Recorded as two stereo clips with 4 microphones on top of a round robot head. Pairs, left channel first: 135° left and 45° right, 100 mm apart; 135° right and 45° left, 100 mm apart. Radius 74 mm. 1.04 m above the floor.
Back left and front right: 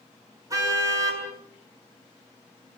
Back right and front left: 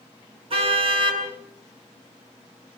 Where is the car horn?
10° left, 7.5 m.